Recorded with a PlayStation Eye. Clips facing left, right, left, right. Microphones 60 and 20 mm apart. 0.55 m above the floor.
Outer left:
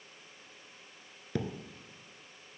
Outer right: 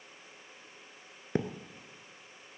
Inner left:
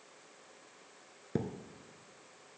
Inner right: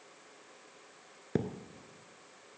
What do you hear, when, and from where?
1.4 s a thud: 30° right (ahead or behind), 0.6 m